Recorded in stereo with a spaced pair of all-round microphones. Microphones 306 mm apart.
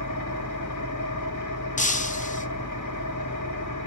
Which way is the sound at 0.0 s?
75° left (ahead or behind).